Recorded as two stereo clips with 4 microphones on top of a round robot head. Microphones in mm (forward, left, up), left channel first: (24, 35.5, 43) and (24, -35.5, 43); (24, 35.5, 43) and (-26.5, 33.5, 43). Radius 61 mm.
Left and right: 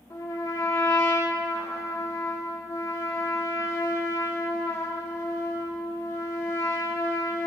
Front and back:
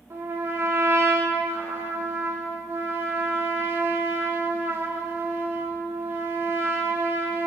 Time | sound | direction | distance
0.1 | a trumpet | 145° left | 2.5 m